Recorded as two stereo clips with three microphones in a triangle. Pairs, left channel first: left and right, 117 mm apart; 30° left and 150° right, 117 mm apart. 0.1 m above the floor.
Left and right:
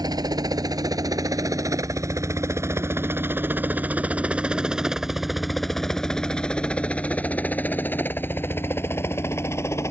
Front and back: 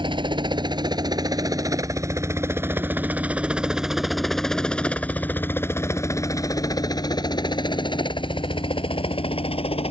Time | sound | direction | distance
0.0 | a helicopter | 130° right | ?